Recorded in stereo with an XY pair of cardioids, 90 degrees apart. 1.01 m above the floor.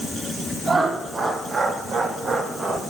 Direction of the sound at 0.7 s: 65° right.